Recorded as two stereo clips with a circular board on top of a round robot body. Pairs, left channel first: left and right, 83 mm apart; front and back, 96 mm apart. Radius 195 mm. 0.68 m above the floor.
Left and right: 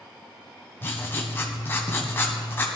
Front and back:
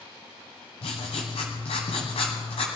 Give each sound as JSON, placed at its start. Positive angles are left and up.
{"t": 0.8, "sound": "writing", "azimuth_deg": 25, "distance_m": 0.9}